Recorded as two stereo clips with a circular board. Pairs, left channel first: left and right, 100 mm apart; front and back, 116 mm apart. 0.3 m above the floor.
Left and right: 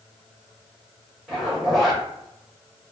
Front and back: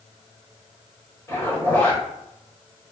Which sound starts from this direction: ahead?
A zipper, at 1.3 s.